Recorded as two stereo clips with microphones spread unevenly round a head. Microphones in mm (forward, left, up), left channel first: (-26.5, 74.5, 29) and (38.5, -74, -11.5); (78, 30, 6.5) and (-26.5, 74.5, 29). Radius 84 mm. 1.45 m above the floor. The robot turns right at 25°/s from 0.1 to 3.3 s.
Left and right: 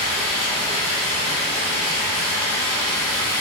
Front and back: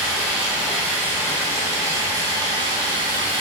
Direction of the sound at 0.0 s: 75° left.